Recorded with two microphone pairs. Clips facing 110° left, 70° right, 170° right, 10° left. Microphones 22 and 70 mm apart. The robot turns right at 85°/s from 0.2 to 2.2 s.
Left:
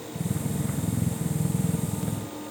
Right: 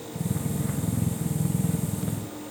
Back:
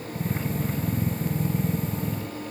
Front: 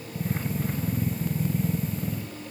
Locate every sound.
Only background noise.